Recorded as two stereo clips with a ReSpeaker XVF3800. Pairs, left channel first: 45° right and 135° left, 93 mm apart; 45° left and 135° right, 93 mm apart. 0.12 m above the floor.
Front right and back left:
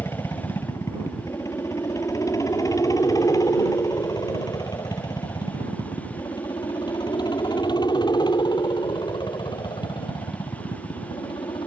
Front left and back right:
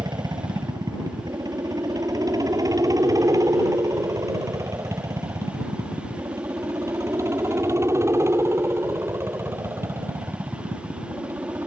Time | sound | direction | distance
0.0 | a helicopter | 100° right | ?